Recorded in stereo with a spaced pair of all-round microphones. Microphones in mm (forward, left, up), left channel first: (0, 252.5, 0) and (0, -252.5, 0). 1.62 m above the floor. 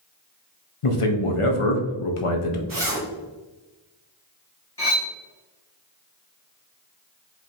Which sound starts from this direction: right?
A zipper, at 2.7 s.